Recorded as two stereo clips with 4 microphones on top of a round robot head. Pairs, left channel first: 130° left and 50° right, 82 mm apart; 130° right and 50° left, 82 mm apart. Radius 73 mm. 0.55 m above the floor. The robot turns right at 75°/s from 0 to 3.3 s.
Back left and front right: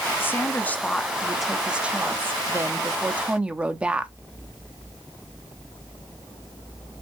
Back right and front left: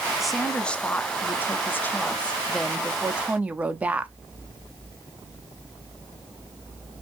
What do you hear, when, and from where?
0.2 s a woman speaking: 135° left, 0.9 m; by 4.1 s 5° left, 0.9 m